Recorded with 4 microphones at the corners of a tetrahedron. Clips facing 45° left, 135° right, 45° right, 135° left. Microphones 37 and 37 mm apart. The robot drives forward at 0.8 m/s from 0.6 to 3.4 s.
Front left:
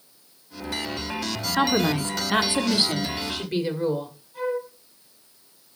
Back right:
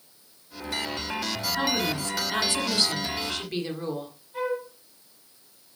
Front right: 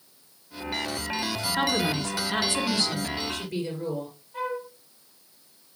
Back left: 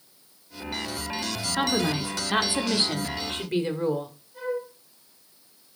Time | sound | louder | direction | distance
1.6 | a woman speaking | front left 7 dB, back left 1 dB | 50° left | 1.6 m
4.3 | a flute | front left 1 dB, back left 1 dB | 90° right | 7 m